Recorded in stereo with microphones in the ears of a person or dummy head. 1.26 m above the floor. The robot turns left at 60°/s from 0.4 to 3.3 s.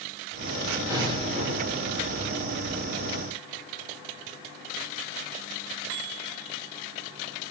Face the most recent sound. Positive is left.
turn(degrees=-165)